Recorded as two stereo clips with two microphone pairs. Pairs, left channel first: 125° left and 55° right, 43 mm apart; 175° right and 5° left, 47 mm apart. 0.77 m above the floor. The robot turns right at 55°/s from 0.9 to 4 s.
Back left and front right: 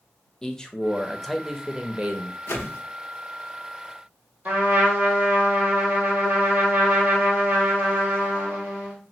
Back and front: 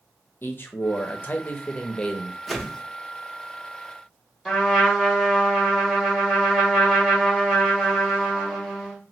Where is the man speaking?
170° right, 0.6 m; by 2.4 s 90° right, 0.6 m.